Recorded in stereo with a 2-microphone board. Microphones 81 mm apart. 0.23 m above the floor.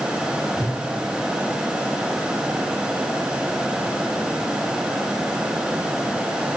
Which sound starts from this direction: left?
A whoosh, at 0.6 s.